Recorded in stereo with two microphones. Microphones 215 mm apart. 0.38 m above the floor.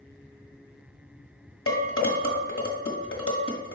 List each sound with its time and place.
1.7 s dishes clattering: 70° left (ahead or behind), 1.4 m